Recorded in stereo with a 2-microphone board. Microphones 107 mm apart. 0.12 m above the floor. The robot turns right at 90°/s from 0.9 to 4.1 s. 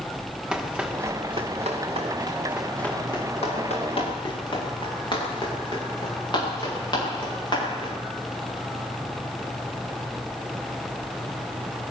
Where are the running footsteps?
10° right (ahead or behind), 4.5 m; by 7.9 s 45° left (ahead or behind), 15.5 m.